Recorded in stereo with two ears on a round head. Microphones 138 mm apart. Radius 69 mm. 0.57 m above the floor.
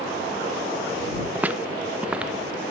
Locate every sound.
1.4 s footsteps: 10° right (ahead or behind); by 2.6 s 5° right (ahead or behind)